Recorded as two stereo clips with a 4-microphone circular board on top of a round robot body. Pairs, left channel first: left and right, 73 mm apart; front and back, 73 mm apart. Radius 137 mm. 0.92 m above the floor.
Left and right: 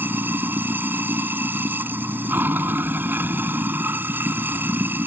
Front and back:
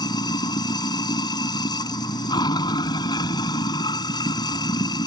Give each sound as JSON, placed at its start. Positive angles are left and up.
{"t": 0.0, "sound": "running water", "azimuth_deg": -25}